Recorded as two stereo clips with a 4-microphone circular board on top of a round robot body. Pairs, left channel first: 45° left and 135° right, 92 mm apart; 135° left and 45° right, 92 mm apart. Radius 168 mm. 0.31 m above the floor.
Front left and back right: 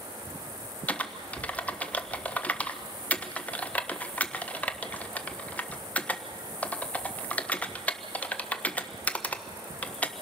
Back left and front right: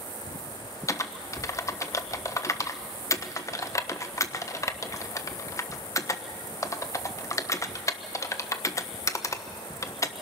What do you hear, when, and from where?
0.9 s typing on a keyboard: 110° left, 1.3 m